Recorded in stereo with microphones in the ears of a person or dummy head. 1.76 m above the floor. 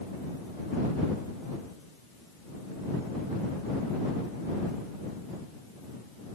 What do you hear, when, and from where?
Only background noise.